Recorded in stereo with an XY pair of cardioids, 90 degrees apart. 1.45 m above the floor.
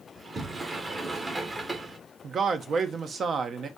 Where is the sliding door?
25° right, 1.1 m.